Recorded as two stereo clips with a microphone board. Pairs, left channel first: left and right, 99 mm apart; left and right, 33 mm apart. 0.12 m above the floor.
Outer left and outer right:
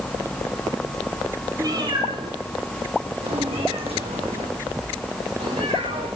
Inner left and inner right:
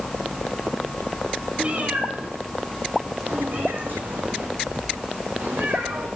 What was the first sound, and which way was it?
A cat meowing, 35° right (ahead or behind).